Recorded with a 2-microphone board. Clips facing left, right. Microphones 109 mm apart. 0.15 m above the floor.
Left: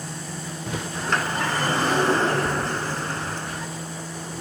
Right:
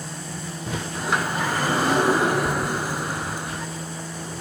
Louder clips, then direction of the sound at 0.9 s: Right 1 dB; 10° right (ahead or behind).